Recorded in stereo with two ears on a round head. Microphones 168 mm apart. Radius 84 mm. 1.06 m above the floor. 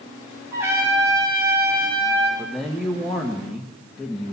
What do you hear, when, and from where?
0.5 s a trumpet: 15° right (ahead or behind), 6 m
2.4 s a man speaking: centre (ahead or behind), 1.0 m